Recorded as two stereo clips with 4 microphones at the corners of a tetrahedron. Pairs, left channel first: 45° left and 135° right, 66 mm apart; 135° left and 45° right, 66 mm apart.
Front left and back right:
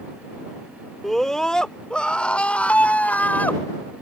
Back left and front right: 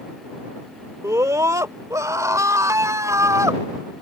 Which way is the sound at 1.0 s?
40° right.